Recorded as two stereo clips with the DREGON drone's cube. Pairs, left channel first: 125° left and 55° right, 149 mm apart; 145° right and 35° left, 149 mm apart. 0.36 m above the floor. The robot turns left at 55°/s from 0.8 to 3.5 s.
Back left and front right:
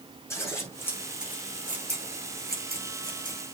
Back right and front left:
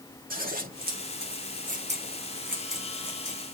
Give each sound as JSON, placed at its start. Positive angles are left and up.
{"t": 0.3, "sound": "scissors", "azimuth_deg": 50, "distance_m": 5.0}